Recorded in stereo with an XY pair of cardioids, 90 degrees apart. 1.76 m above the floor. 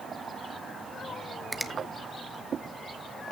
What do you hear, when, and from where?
1.5 s a finger snap: 5° right, 1.0 m